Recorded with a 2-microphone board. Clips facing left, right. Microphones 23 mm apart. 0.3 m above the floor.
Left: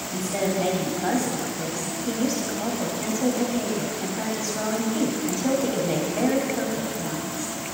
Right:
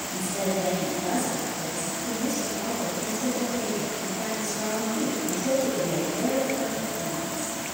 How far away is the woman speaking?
About 1.9 m.